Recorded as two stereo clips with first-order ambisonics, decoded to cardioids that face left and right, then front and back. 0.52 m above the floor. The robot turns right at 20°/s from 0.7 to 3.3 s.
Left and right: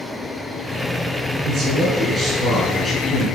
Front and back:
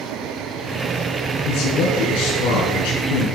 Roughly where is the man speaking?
Ahead right.